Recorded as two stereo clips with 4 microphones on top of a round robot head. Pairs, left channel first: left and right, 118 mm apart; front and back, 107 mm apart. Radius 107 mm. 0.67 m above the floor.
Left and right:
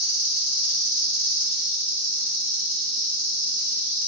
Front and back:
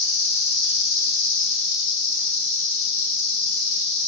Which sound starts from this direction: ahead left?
An insect, at 0.0 s.